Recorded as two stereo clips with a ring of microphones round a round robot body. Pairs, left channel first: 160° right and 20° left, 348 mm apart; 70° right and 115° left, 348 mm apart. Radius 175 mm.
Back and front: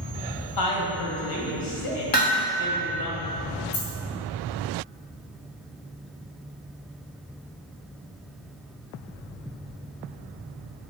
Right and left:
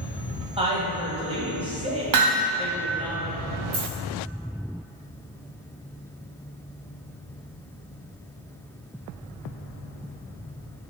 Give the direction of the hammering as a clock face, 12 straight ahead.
7 o'clock.